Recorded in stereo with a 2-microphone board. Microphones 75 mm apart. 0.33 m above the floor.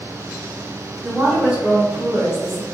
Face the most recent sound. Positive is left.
turn(degrees=-15)  # may be behind; listen again after turning